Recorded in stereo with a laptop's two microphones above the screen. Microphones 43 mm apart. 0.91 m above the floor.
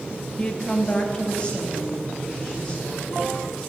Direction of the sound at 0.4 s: 20° left (ahead or behind).